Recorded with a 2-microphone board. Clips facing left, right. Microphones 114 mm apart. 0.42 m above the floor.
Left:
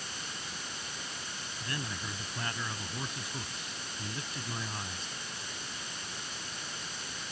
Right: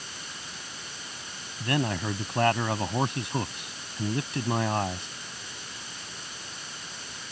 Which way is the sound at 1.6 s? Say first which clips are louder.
Right 13 dB; 70° right (ahead or behind).